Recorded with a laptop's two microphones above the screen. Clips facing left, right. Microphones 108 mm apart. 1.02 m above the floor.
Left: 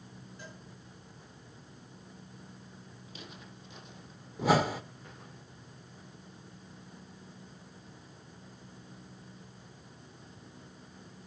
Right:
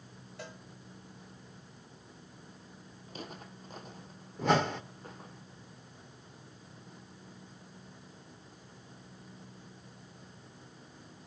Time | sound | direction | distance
0.4 | a cowbell | 80° right | 3 m
3.1 | footsteps | 45° right (ahead or behind) | 1.5 m
4.4 | a whoosh | 5° left (ahead or behind) | 0.7 m